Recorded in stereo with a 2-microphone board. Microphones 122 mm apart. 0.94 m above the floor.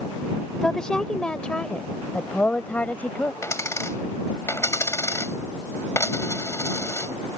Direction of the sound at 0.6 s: 5° left (ahead or behind).